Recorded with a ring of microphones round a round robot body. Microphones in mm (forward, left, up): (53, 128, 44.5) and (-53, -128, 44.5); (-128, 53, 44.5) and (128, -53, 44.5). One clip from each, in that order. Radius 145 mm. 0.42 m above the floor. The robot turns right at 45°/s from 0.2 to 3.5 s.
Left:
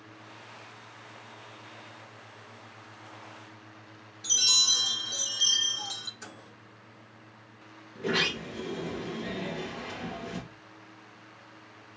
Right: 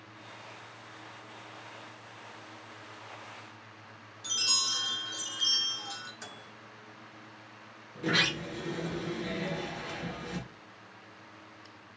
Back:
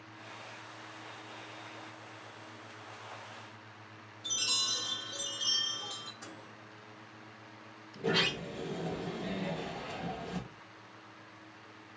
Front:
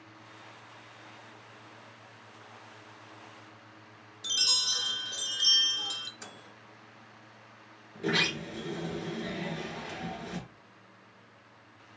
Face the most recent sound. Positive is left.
turn(degrees=-55)